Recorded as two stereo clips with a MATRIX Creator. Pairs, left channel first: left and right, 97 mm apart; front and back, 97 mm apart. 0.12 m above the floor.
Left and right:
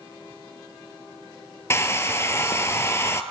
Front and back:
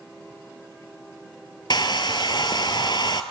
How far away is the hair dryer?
About 0.9 m.